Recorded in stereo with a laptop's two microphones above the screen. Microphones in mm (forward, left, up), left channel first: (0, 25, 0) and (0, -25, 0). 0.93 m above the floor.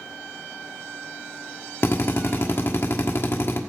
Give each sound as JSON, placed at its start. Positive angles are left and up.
{"t": 1.8, "sound": "a drill", "side_deg": 55, "distance_m": 1.4}